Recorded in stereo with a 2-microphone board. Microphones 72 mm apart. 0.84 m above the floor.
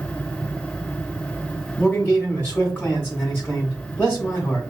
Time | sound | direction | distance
1.8 | a man speaking | 25° left (ahead or behind) | 2.5 m